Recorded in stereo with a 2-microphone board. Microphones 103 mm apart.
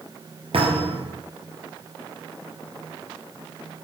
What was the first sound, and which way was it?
A thud, 70° right (ahead or behind).